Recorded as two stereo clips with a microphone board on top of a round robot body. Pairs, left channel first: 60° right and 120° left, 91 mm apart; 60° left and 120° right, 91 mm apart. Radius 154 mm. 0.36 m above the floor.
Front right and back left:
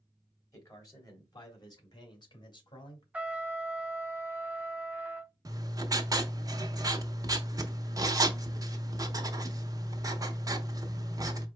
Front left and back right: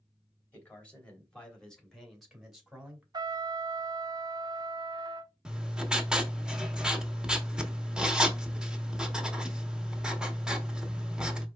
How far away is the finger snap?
No finger snap in this recording.